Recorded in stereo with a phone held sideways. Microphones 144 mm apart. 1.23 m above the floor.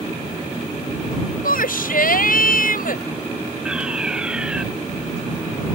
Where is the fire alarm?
5° right (ahead or behind).